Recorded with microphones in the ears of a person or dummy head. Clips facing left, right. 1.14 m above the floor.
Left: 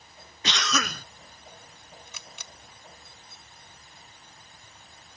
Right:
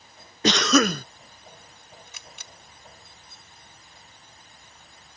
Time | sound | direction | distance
0.4 | a cough | 35° right (ahead or behind) | ?
2.1 | a camera shutter | 85° left | ?